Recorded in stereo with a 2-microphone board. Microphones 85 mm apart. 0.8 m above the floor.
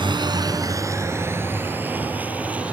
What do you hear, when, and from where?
0.0 s a vehicle: 65° right (ahead or behind); by 2.7 s 15° right (ahead or behind)